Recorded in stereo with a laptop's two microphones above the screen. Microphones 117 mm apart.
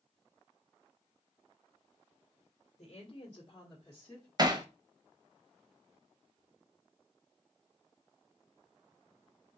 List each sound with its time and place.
2.8 s a woman speaking: 50° left (ahead or behind), 1.3 m; by 4.3 s 15° left (ahead or behind), 1.3 m
4.4 s hammering: 35° right (ahead or behind), 0.6 m